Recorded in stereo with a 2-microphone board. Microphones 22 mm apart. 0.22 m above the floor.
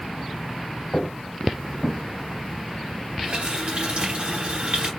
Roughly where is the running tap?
Right.